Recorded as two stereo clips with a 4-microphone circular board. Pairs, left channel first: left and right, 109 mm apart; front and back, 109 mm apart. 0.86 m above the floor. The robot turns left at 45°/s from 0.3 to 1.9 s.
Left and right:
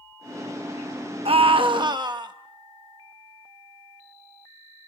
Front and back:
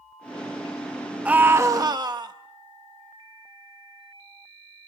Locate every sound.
1.2 s a scream: 105° right, 0.8 m; by 2.3 s 135° right, 0.8 m